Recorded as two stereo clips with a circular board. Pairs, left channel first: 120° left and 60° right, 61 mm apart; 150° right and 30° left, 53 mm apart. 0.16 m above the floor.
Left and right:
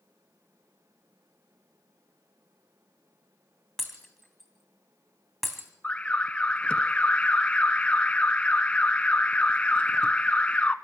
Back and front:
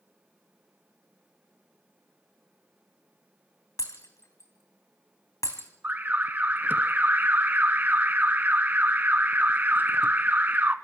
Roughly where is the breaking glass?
Behind right.